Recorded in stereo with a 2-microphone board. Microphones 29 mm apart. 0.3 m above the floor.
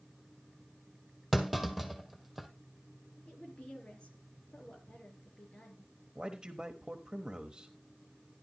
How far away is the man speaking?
About 1.1 m.